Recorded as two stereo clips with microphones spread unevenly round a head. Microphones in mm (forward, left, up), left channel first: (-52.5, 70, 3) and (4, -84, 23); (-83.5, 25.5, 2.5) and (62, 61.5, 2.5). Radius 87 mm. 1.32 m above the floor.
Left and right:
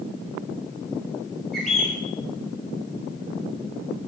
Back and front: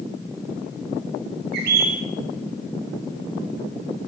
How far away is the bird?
About 3.5 m.